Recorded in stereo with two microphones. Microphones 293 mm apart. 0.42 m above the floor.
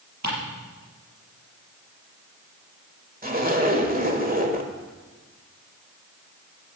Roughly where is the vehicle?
I don't hear a vehicle.